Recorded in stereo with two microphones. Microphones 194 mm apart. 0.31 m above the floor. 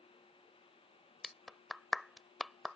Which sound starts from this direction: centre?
A clap, at 1.2 s.